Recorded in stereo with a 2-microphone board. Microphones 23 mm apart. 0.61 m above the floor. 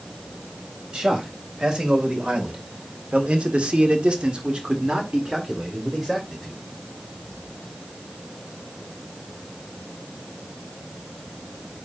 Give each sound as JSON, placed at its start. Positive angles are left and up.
{"t": 0.9, "sound": "a man speaking", "side_deg": -35, "distance_m": 3.5}